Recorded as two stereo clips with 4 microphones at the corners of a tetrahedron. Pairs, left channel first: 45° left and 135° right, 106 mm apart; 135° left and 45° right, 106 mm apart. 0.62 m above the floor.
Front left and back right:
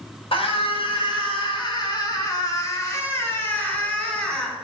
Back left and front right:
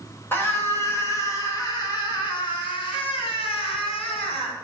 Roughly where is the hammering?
No hammering in this recording.